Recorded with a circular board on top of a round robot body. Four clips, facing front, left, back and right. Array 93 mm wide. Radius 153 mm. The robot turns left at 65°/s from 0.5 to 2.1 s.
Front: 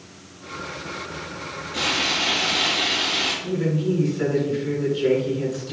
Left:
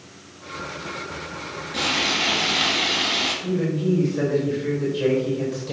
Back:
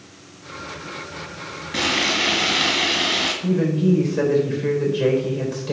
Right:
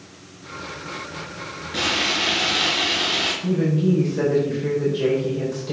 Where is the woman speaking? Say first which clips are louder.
Right 3 dB, back 4 dB; 175° right, 4 m.